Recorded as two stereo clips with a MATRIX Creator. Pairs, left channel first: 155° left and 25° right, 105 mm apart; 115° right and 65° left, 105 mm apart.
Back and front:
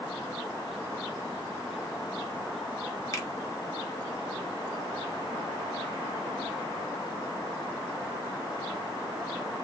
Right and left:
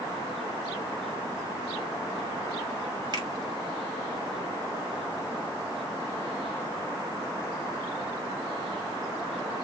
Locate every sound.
3.1 s a finger snap: 105° left, 0.8 m